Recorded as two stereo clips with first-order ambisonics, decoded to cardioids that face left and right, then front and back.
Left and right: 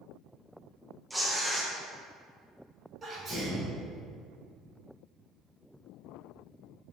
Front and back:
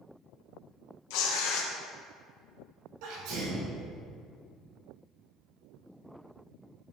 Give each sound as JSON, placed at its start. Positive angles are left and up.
{"t": 1.1, "sound": "tearing paper", "azimuth_deg": 0, "distance_m": 0.6}
{"t": 3.0, "sound": "a sneeze", "azimuth_deg": -165, "distance_m": 1.5}